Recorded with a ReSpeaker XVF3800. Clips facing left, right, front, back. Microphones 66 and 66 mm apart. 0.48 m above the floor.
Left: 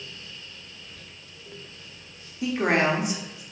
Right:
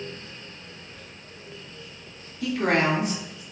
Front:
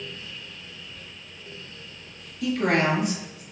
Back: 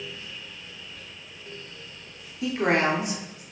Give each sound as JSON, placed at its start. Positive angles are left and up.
{"t": 0.8, "sound": "whispering", "azimuth_deg": -100, "distance_m": 1.3}
{"t": 2.4, "sound": "a woman speaking", "azimuth_deg": 140, "distance_m": 0.8}